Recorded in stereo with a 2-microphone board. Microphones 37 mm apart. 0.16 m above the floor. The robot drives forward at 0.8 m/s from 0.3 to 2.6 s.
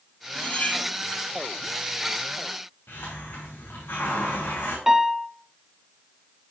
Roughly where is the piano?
Centre.